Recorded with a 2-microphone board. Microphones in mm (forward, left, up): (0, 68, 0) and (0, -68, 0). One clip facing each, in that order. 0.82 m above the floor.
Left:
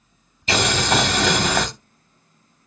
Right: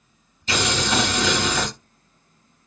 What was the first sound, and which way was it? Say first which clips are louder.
Boiling: left 3 dB; 65° left (ahead or behind).